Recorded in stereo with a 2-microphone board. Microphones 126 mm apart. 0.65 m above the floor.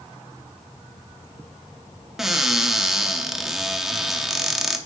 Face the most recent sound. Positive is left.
turn(degrees=-5)  # may be behind; listen again after turning